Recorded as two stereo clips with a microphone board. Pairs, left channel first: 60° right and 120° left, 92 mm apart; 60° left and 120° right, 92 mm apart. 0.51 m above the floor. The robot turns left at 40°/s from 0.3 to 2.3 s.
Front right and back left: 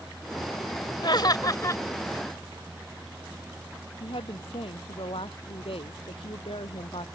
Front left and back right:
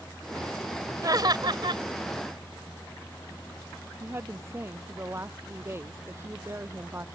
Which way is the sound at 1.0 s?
80° right.